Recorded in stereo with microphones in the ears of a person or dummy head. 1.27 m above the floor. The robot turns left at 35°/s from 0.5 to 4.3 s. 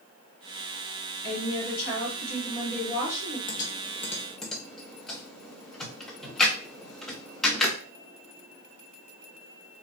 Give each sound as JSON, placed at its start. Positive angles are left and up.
{"t": 1.2, "sound": "a woman speaking", "azimuth_deg": 80, "distance_m": 2.5}
{"t": 3.5, "sound": "typing on a keyboard", "side_deg": 25, "distance_m": 0.9}